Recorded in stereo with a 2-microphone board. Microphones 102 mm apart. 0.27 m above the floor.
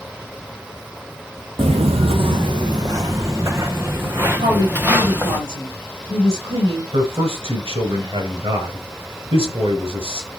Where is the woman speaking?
65° right (ahead or behind), 4 m.